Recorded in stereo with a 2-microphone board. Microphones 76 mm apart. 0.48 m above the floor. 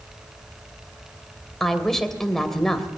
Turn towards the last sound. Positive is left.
turn(degrees=5)  # may be behind; listen again after turning